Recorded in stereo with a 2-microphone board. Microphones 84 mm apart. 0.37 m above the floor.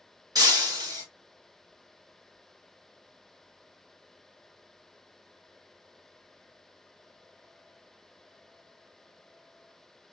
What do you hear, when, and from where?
0.3 s breaking glass: 50° right (ahead or behind), 2.5 m